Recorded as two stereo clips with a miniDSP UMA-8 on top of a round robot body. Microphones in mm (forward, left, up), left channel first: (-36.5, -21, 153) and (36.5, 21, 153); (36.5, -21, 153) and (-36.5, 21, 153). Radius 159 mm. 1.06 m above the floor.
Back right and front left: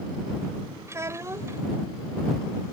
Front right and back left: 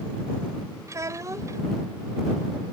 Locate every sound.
0.9 s a child speaking: 90° left